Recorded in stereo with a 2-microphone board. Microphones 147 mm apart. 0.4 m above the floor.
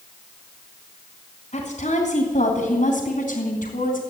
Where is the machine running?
No machine running in this recording.